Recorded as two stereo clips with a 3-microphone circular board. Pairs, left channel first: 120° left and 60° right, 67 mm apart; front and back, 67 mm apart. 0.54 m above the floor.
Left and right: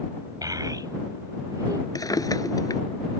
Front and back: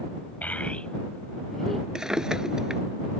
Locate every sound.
0.4 s a child speaking: 65° right; by 1.9 s 85° right
1.9 s a drawer: 100° left